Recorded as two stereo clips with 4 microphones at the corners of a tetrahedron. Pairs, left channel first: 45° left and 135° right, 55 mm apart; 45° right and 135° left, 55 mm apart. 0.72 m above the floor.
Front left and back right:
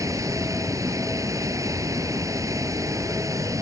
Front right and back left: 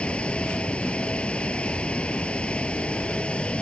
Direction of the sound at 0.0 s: 115° right.